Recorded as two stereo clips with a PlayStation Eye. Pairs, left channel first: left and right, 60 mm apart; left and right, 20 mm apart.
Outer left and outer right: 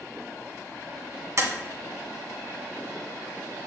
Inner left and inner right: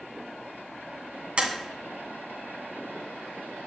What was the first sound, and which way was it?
Tapping, 60° right (ahead or behind).